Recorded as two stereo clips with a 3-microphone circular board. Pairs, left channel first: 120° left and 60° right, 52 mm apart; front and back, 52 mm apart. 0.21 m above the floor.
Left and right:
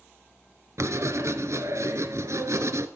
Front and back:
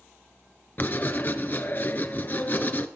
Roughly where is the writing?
Ahead right.